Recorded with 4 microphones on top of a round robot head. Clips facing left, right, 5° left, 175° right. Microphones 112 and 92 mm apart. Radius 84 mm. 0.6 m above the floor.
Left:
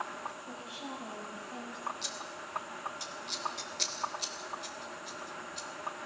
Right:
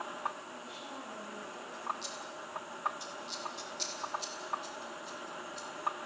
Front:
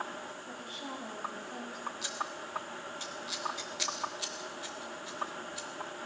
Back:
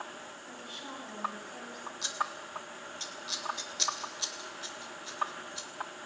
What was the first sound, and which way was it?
A woman speaking, 65° left.